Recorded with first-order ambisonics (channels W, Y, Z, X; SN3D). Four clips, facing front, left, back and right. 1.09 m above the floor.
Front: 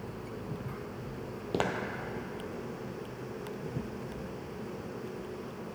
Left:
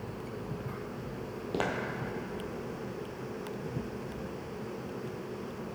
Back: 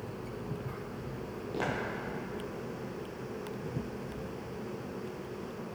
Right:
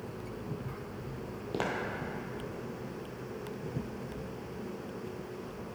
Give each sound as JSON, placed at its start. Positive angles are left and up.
{"t": 1.5, "sound": "footsteps", "azimuth_deg": 5, "distance_m": 1.4}